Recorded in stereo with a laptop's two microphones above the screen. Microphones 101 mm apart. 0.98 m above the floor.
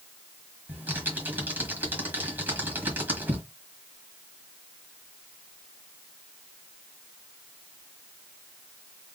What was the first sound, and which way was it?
Typing on a keyboard, 20° right (ahead or behind).